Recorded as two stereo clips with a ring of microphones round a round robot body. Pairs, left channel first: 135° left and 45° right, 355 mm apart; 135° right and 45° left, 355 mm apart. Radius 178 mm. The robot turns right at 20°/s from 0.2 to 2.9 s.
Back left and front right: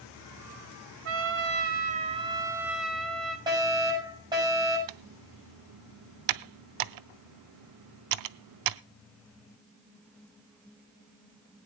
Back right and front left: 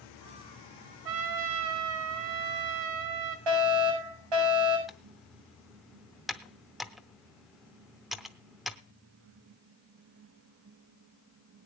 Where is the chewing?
No chewing in this recording.